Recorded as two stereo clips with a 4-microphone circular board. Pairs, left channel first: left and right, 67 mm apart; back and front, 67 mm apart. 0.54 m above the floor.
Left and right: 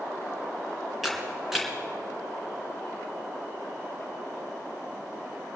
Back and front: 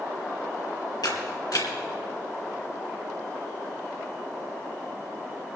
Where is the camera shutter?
175° right, 2.5 m.